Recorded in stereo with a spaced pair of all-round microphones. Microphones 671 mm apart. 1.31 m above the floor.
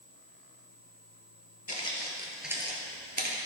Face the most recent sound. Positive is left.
turn(degrees=-30)  # may be behind; listen again after turning